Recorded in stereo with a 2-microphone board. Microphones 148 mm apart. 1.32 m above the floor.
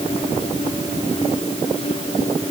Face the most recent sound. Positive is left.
No sound to turn to.